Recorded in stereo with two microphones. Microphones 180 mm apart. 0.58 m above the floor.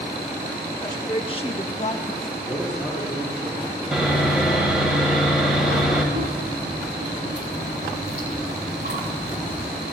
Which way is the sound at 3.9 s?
Centre (ahead or behind).